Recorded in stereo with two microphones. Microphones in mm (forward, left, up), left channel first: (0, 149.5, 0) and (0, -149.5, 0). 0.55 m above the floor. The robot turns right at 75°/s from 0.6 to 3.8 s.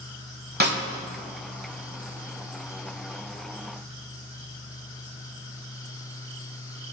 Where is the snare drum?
30° right (ahead or behind), 0.8 m; by 0.8 s 45° right (ahead or behind), 0.8 m.